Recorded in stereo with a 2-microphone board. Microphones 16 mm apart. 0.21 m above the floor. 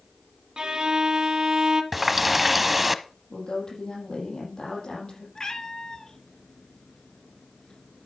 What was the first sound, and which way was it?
A violin, 45° right (ahead or behind).